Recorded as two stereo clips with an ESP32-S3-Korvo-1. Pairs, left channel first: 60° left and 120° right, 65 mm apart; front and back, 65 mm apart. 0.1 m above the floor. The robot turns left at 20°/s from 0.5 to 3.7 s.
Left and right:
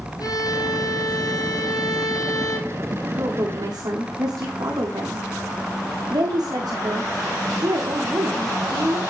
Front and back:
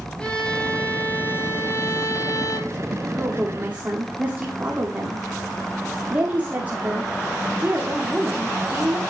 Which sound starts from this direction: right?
A woman speaking, at 3.1 s.